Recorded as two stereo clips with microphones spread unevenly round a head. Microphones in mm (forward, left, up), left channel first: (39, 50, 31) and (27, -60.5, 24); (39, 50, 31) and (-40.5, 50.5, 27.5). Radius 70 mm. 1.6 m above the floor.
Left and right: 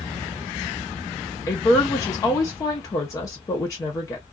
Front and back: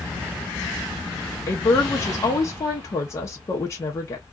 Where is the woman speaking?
35° left, 0.7 m.